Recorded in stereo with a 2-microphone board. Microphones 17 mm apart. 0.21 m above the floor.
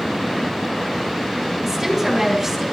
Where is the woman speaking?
10° right (ahead or behind), 4.5 m.